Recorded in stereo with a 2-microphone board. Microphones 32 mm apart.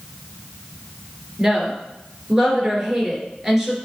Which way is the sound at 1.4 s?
15° right (ahead or behind).